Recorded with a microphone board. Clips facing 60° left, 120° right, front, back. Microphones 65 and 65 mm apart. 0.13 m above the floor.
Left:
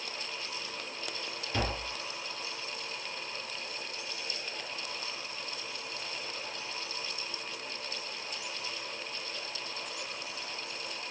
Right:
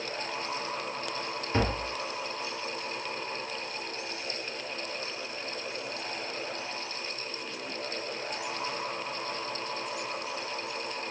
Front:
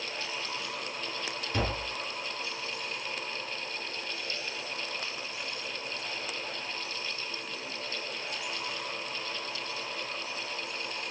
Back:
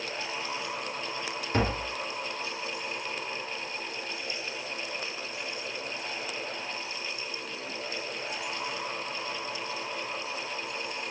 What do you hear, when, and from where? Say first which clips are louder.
1.5 s tapping: right 5 dB, back 4 dB; 160° right, 1.6 m